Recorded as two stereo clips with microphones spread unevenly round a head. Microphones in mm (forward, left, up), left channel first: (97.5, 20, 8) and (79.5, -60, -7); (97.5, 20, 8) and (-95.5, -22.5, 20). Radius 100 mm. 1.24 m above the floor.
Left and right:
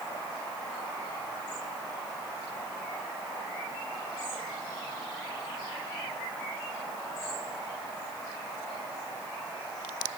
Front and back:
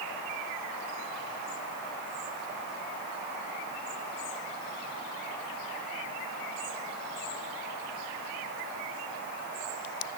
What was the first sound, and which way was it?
Only background noise.